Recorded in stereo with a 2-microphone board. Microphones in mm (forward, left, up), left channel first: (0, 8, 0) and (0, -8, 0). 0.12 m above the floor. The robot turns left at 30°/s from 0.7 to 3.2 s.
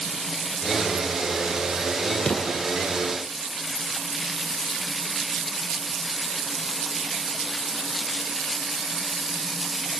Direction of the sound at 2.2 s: 65° left (ahead or behind).